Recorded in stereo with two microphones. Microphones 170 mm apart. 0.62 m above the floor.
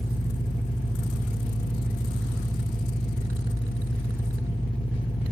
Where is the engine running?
30° left (ahead or behind), 1.4 m.